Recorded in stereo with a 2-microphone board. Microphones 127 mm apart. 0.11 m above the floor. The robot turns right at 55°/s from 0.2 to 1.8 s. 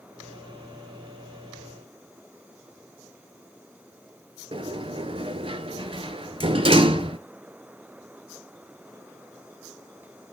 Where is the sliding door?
45° right (ahead or behind), 0.5 m.